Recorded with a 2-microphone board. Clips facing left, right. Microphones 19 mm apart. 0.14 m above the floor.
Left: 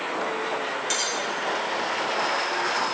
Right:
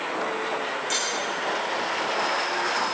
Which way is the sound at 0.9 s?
30° left (ahead or behind).